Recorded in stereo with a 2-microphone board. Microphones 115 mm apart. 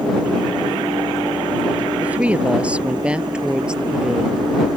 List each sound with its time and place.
2.0 s a woman speaking: 15° right (ahead or behind); by 4.5 s 5° right (ahead or behind)